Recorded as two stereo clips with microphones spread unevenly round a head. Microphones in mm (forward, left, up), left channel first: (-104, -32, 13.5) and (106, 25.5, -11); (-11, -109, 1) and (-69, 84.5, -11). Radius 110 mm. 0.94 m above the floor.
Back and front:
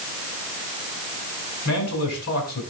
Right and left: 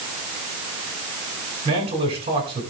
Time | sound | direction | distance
1.6 | a man speaking | 170° left | 8.5 m